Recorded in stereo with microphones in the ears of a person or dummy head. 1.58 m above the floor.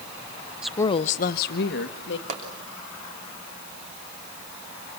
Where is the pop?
45° right (ahead or behind), 3 m.